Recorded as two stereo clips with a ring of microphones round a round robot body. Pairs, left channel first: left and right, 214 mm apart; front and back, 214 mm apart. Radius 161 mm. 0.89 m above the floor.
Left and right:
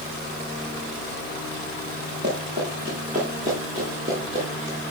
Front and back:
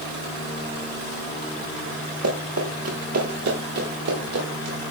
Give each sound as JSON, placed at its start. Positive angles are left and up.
{"t": 2.2, "sound": "running footsteps", "azimuth_deg": -150, "distance_m": 7.0}